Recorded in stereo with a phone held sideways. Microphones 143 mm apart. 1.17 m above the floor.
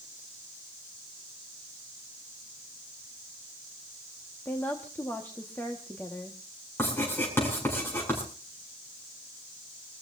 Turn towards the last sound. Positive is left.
turn(degrees=15)  # may be behind; listen again after turning